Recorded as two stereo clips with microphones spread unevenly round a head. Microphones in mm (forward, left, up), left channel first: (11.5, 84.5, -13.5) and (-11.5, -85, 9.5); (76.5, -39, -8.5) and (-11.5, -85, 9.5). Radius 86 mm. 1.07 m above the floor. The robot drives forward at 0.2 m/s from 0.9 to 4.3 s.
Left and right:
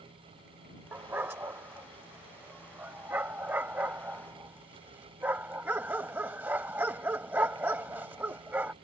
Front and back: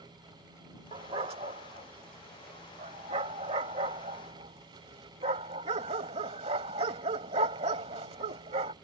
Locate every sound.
0.9 s a dog barking: 170° right; by 8.7 s 175° right